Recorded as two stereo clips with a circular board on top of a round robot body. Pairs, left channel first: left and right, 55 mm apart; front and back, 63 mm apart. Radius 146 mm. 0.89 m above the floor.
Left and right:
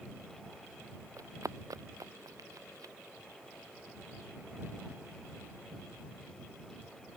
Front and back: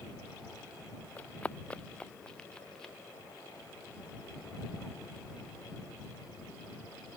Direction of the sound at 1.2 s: 70° right.